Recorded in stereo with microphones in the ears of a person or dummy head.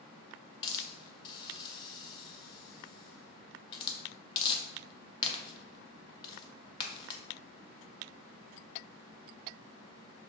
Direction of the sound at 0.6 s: 30° left (ahead or behind).